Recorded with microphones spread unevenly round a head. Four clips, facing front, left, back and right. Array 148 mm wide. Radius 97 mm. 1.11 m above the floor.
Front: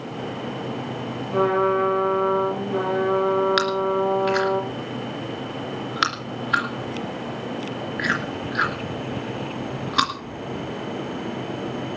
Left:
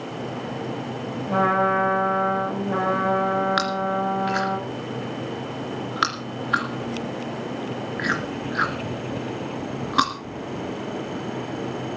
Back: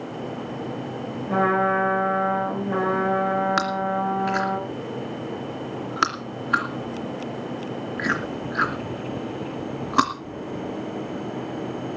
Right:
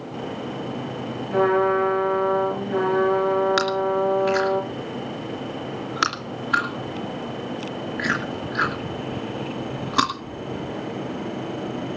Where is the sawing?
No sawing in this recording.